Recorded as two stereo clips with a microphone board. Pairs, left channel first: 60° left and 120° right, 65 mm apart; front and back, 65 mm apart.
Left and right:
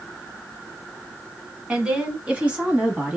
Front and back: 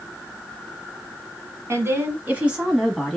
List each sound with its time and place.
1.7 s a woman speaking: 175° left, 1.5 m; by 3.2 s 65° right, 1.2 m